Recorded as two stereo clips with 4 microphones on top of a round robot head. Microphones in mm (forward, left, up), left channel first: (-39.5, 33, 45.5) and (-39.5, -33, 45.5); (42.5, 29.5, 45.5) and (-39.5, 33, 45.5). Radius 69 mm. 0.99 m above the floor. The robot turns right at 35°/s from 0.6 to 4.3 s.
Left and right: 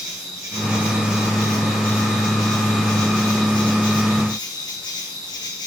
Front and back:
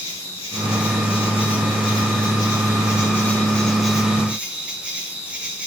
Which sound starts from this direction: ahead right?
An insect, at 0.0 s.